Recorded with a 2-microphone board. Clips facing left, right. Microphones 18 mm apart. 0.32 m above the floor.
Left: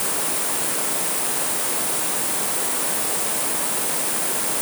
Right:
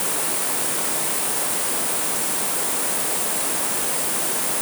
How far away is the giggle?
I don't hear a giggle.